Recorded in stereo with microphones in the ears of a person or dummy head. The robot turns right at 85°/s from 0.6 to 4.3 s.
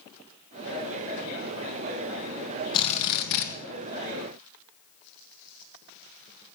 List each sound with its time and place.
2.7 s a drill: 25° left, 1.6 m; by 3.5 s 90° left, 1.6 m